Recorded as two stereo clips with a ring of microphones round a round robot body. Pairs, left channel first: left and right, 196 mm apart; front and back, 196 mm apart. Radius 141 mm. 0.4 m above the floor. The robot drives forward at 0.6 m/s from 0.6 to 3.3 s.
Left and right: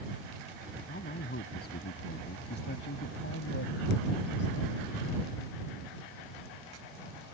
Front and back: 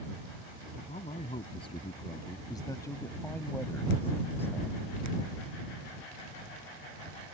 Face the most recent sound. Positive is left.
turn(degrees=80)